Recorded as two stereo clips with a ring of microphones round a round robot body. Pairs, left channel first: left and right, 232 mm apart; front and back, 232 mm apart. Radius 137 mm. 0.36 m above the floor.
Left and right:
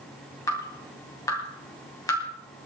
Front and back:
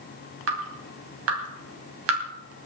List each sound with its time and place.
0.5 s dripping: 165° left, 2.5 m